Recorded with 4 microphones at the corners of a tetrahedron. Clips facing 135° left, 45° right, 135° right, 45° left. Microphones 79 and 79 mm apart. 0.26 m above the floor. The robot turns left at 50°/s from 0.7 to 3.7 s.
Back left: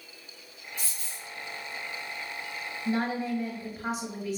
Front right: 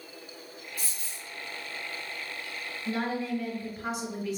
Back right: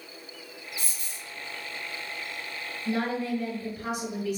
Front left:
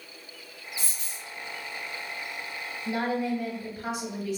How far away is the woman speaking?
About 1.4 m.